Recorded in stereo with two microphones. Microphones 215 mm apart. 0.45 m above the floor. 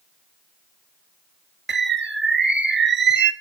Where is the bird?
60° right (ahead or behind), 0.5 m.